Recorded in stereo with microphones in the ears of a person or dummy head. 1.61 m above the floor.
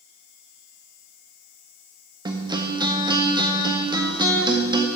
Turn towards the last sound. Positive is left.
turn(degrees=-25)  # may be behind; listen again after turning